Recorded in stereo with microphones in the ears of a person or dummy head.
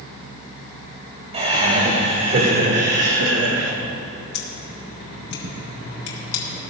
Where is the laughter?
25° right (ahead or behind), 3.5 m; by 3.7 s 80° right, 1.8 m.